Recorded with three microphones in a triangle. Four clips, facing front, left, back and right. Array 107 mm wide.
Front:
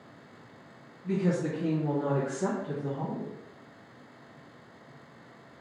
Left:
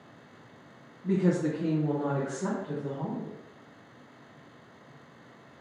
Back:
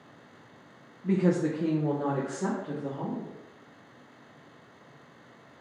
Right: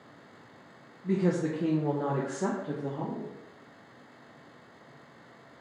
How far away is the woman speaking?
About 0.6 m.